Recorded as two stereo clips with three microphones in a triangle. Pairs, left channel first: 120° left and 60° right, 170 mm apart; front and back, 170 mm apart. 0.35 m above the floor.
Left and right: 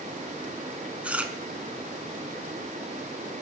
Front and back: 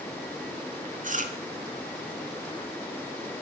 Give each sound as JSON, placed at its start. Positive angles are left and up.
{"t": 1.0, "sound": "chewing", "azimuth_deg": -140, "distance_m": 0.6}